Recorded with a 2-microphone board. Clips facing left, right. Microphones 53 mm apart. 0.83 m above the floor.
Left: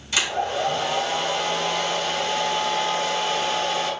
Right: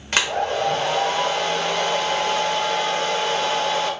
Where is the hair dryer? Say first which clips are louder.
Right 3 dB; 50° right (ahead or behind), 1.2 m.